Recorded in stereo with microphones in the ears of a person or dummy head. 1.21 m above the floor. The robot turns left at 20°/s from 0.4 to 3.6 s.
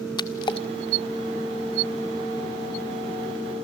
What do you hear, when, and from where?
0.2 s a splash: 20° left (ahead or behind), 1.3 m; by 0.7 s 25° left (ahead or behind), 1.3 m